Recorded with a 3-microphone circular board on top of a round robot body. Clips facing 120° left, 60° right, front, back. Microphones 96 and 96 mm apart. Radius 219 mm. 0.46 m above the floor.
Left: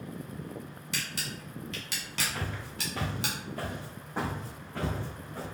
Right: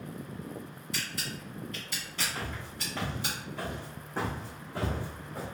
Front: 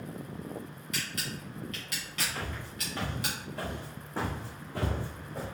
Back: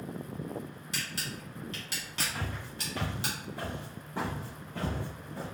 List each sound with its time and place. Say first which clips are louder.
0.9 s a camera shutter: even, front 2 dB; 120° left, 0.5 m
2.4 s footsteps: left 1 dB, even; 155° left, 0.8 m; by 5.5 s 10° left, 1.1 m